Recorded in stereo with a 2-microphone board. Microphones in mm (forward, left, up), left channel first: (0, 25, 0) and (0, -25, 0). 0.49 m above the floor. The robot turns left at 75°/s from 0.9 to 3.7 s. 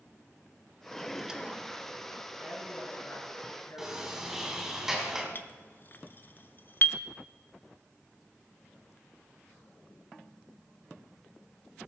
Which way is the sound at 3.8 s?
10° right (ahead or behind).